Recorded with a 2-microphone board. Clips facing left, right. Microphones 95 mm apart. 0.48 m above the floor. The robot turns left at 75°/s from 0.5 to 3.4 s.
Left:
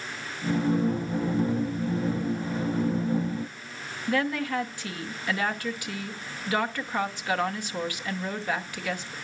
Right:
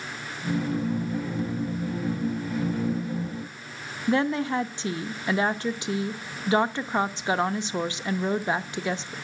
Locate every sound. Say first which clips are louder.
4.1 s a woman speaking: right 3 dB; 25° right (ahead or behind), 0.7 m